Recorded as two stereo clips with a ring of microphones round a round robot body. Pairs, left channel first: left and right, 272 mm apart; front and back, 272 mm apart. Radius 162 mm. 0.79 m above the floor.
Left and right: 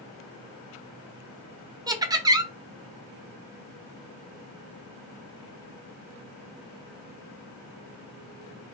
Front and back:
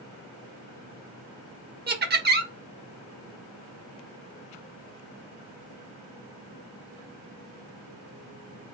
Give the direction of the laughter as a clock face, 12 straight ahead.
5 o'clock.